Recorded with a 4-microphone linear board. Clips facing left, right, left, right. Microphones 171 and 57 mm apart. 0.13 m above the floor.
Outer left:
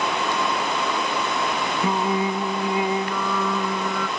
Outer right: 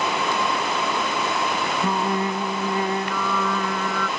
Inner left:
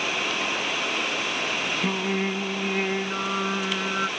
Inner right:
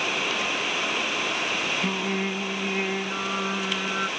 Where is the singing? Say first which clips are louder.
Outer left 2 dB, inner left 1 dB; 10° left (ahead or behind).